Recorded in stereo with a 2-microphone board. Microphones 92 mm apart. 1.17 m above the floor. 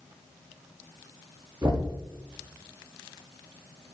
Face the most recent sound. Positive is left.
turn(degrees=-45)  # may be behind; listen again after turning